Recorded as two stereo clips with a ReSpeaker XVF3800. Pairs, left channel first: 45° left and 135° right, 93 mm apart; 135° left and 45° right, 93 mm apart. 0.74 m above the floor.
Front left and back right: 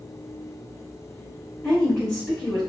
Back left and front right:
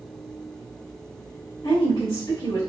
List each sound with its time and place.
1.6 s a woman speaking: 125° left, 1.4 m